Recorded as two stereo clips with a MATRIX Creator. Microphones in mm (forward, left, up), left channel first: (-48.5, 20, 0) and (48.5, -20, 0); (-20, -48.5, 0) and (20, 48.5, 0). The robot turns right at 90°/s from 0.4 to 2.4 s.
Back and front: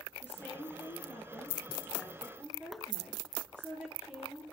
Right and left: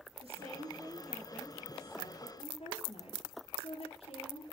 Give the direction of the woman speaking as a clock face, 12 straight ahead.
9 o'clock.